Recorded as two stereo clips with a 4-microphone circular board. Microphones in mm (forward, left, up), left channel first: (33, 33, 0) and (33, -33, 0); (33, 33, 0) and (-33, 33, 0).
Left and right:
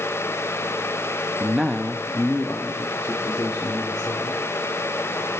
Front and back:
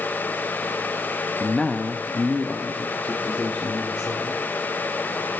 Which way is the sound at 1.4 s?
65° right.